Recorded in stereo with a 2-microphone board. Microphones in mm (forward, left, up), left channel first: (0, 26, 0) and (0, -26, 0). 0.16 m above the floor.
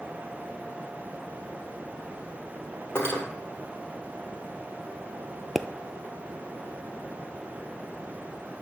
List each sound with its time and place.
3.0 s cutlery clinking: 55° left (ahead or behind), 2.5 m
5.5 s a pop: centre (ahead or behind), 0.5 m